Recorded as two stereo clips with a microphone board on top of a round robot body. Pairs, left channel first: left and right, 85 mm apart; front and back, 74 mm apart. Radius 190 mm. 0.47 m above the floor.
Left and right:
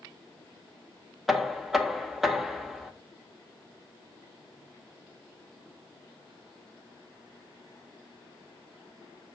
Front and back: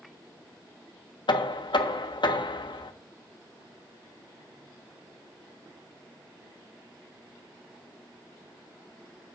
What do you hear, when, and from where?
1.3 s knocking: straight ahead, 0.9 m